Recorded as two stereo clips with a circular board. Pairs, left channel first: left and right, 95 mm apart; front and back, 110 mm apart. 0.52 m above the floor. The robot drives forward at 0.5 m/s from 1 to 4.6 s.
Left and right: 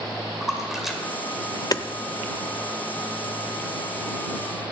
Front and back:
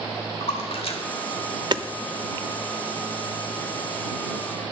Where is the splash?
5° right, 1.9 m.